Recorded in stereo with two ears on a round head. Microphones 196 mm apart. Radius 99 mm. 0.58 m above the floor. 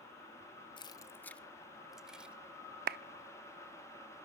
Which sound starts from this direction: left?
Keys jangling, at 0.8 s.